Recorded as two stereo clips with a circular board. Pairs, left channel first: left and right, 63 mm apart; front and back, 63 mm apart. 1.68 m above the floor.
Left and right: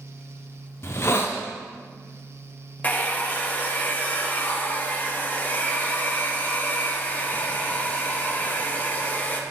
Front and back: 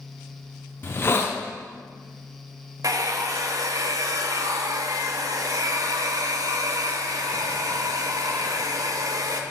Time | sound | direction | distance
0.8 | a hiss | 50° left | 0.6 m
2.8 | a hair dryer | 155° left | 0.5 m